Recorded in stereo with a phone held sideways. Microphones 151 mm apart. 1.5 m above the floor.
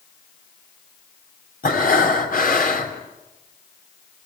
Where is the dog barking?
I don't hear a dog barking.